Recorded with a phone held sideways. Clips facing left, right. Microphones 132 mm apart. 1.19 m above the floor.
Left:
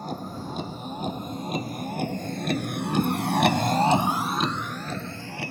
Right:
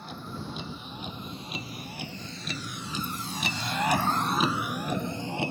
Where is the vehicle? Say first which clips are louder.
Left 6 dB; 45° left (ahead or behind); by 5.5 s 25° right (ahead or behind).